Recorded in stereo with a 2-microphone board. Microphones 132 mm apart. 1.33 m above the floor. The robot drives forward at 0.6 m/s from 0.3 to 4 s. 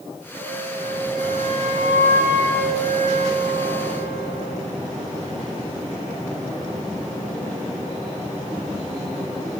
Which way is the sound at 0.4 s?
70° right (ahead or behind).